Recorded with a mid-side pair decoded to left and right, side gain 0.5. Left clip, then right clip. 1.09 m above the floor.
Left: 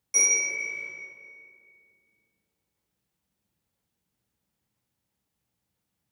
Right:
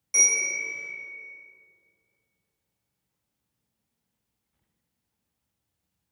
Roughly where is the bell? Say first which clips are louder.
Right 1 dB; ahead.